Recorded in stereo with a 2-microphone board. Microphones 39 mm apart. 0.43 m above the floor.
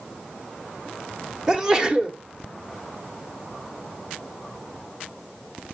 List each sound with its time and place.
1.5 s a sneeze: 15° right (ahead or behind), 0.9 m